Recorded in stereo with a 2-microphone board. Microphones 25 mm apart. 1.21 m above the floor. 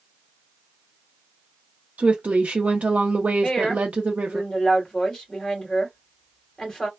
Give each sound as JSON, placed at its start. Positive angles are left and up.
{"t": 2.0, "sound": "a woman speaking", "side_deg": -75, "distance_m": 0.6}
{"t": 3.4, "sound": "a woman speaking", "side_deg": 20, "distance_m": 2.0}